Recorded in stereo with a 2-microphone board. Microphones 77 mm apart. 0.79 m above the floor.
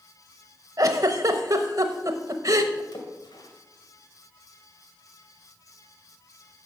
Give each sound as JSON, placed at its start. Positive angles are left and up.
{"t": 0.8, "sound": "a giggle", "side_deg": -50, "distance_m": 1.0}
{"t": 2.9, "sound": "a splash", "side_deg": 65, "distance_m": 1.9}